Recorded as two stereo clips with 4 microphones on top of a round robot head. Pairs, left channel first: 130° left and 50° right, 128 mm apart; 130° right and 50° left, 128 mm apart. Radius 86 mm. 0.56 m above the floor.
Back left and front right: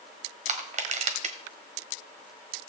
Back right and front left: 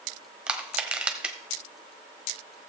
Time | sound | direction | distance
0.5 | crushing | 35° right | 1.4 m